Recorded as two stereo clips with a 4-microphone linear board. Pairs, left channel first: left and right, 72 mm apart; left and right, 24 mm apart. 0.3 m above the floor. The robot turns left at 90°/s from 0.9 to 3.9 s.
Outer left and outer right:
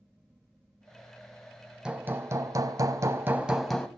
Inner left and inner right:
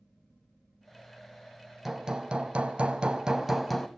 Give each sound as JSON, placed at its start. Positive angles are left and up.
{"t": 1.9, "sound": "hammering", "azimuth_deg": -15, "distance_m": 1.5}